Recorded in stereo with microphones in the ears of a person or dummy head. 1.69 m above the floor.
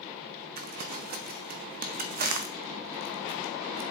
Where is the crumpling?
40° right (ahead or behind), 0.6 m.